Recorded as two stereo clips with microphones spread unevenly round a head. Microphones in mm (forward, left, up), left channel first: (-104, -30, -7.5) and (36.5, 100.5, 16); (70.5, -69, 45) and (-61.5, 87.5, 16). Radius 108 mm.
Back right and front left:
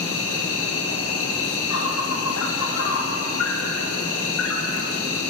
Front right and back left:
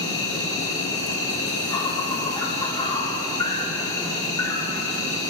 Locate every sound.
0.0 s an insect: 125° right, 3 m